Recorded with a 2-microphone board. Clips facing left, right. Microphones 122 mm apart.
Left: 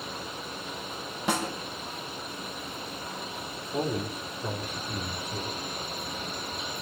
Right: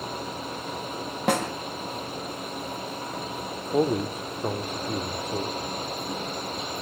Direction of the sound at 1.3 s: 60° right (ahead or behind).